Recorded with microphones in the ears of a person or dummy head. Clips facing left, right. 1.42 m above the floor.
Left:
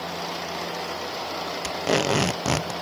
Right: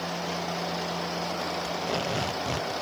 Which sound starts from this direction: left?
Tape being pulled, at 1.6 s.